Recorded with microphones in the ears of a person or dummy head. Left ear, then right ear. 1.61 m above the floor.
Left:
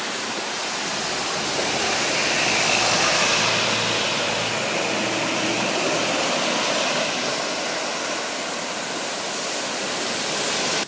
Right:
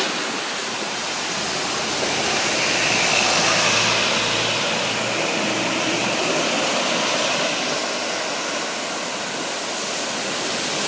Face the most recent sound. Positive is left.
No sound to turn to.